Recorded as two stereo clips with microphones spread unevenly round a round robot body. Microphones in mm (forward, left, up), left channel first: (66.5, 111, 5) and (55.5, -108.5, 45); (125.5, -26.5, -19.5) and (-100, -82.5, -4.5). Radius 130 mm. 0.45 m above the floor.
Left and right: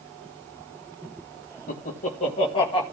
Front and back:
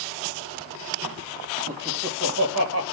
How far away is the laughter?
About 2.5 m.